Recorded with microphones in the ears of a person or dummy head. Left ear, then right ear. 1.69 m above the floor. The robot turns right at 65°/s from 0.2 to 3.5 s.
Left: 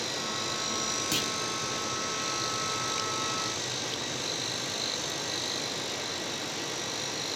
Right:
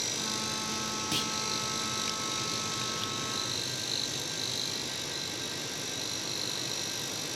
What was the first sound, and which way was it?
A clunk, 15° left (ahead or behind).